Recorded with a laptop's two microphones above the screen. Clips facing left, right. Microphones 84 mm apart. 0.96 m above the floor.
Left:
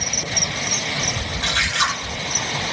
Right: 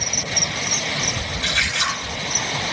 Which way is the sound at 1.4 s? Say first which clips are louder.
Left 3 dB; 70° left (ahead or behind).